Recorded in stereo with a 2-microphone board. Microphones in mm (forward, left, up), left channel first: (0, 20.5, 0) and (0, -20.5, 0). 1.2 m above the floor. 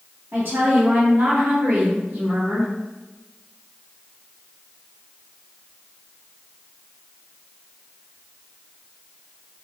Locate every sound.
0.3 s a woman speaking: 60° right (ahead or behind), 1.1 m; by 2.7 s 25° right (ahead or behind), 1.1 m